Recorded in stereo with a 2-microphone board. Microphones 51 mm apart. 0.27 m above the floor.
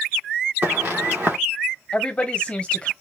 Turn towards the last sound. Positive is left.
turn(degrees=20)  # may be behind; listen again after turning